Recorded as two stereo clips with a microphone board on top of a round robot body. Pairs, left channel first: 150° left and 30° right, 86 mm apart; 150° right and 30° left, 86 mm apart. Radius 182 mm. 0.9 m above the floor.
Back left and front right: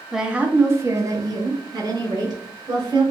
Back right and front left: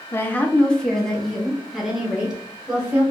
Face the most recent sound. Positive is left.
turn(degrees=-50)